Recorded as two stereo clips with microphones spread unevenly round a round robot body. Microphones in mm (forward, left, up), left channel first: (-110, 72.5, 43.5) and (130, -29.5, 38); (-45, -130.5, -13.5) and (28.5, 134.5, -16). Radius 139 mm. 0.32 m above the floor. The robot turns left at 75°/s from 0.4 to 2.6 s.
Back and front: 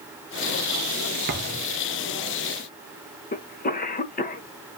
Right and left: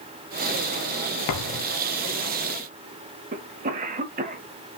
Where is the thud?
80° right, 1.1 m; by 1.6 s 110° right, 1.1 m.